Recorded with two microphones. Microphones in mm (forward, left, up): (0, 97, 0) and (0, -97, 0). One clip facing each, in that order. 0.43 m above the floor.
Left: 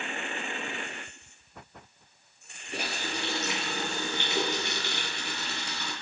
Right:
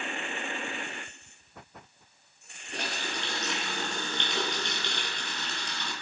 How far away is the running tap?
About 3.5 m.